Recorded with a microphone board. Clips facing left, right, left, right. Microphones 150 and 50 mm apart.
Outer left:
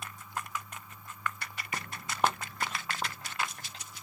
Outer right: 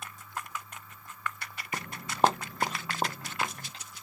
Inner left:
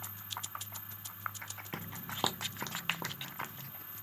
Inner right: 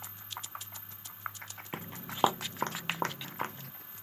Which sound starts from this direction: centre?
Footsteps, at 1.7 s.